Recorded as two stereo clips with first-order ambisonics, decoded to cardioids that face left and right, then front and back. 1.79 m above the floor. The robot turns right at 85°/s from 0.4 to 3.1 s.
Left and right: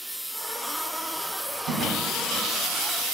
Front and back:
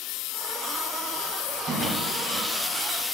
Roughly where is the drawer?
Behind right.